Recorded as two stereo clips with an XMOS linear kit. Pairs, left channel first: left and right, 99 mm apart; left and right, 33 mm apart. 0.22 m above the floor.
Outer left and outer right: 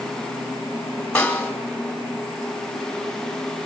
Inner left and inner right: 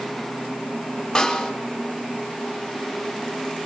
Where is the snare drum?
15° left (ahead or behind), 1.8 m.